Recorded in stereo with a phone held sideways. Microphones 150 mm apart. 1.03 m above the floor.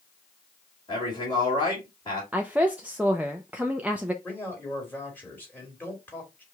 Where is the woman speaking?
10° right (ahead or behind), 0.5 m.